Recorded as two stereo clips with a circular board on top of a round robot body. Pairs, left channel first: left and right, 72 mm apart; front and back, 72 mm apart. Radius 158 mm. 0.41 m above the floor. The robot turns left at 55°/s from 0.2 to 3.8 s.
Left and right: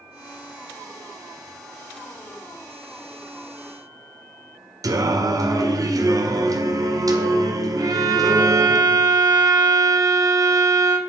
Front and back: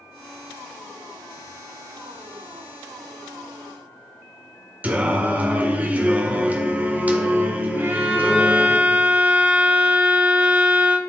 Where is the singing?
115° right, 2.0 m.